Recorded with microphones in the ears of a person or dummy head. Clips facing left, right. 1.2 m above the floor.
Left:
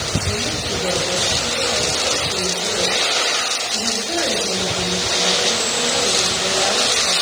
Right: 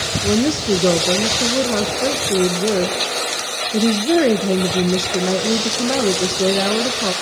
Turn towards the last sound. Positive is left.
turn(degrees=-70)  # may be behind; listen again after turning